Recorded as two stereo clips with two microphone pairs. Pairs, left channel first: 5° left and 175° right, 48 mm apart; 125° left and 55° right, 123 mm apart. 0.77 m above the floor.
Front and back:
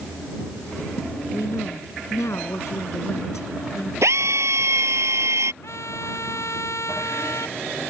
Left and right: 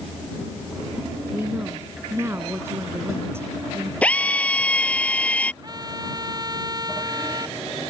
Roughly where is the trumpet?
Ahead.